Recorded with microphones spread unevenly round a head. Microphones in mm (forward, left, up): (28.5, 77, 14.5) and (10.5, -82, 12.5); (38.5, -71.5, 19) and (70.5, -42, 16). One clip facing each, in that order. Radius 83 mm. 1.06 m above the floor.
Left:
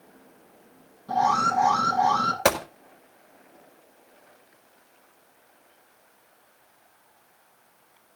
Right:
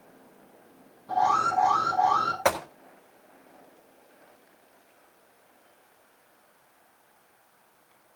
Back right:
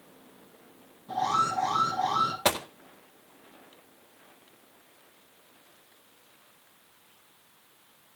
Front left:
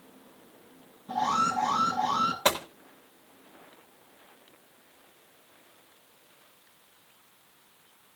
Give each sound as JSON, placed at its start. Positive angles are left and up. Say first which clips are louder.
{"t": 1.1, "sound": "an alarm", "louder": "left 1 dB, even", "azimuth_deg": 130, "distance_m": 6.5}
{"t": 2.5, "sound": "a gunshot", "louder": "left 3 dB, front left 1 dB", "azimuth_deg": 135, "distance_m": 1.7}